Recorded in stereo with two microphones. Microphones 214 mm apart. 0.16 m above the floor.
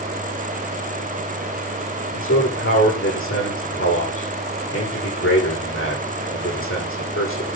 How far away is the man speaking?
About 9.5 m.